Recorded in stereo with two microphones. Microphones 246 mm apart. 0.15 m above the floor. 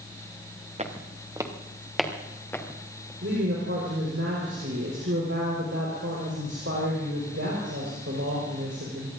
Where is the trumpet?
No trumpet in this recording.